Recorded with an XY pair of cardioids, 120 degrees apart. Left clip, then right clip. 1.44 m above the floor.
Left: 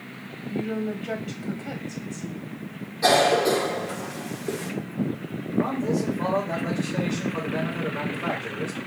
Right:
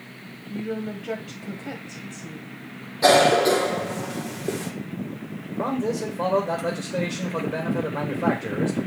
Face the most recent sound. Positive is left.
turn(degrees=-60)